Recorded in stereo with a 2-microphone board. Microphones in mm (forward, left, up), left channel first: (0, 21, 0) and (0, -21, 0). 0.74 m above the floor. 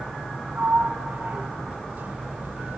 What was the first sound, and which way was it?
A sliding door, 50° right (ahead or behind).